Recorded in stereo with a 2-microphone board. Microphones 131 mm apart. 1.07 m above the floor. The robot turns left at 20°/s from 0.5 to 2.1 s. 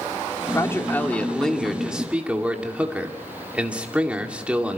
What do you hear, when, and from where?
0.5 s a man speaking: 20° left, 2 m; by 4.8 s 10° right, 2 m